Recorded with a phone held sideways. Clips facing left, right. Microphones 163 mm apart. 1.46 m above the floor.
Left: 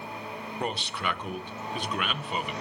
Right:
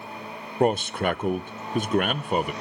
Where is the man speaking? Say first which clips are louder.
Right 11 dB; 45° right (ahead or behind), 0.6 m.